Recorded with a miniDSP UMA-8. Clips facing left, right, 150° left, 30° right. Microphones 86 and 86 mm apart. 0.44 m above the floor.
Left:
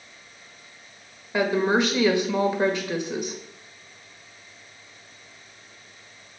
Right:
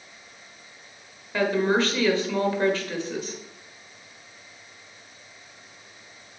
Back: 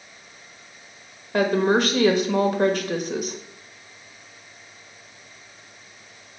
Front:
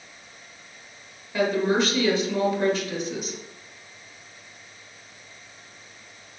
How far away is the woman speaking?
About 1.2 m.